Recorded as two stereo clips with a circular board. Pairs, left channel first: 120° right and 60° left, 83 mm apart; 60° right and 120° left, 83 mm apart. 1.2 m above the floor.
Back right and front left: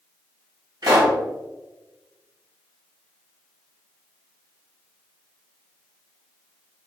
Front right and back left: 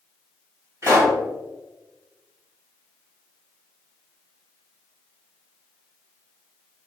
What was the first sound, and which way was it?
A pop, 70° left.